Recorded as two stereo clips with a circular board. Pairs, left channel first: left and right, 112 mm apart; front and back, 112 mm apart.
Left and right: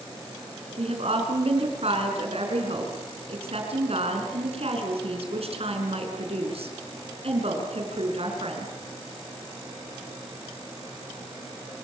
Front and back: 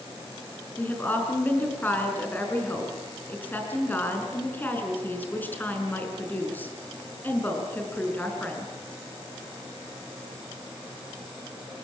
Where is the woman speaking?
70° right, 5.5 m.